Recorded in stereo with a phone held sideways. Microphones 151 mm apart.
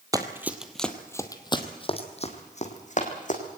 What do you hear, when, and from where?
0.1 s running footsteps: 25° right (ahead or behind), 1.5 m; by 3.4 s 60° left (ahead or behind), 3.5 m